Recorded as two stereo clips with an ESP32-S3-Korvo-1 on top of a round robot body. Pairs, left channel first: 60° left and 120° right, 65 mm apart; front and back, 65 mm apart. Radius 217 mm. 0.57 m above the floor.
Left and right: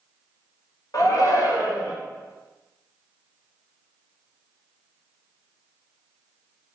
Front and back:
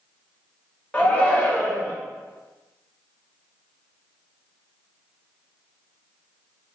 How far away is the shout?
About 2 m.